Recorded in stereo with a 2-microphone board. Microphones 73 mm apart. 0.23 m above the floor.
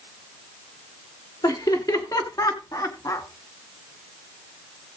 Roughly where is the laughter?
Left.